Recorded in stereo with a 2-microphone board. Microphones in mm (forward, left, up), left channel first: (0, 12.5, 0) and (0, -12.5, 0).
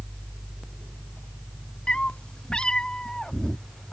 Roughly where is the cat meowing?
Left.